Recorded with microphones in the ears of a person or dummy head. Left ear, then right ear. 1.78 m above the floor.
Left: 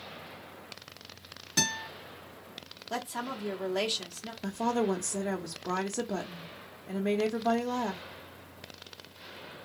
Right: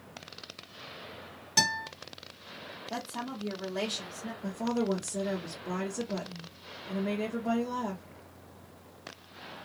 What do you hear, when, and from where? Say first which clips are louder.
1.6 s a guitar: right 3 dB; 5° right (ahead or behind), 1.7 m
2.9 s a woman speaking: left 3 dB; 25° left (ahead or behind), 1.1 m
4.4 s a woman speaking: left 3 dB; 75° left (ahead or behind), 0.8 m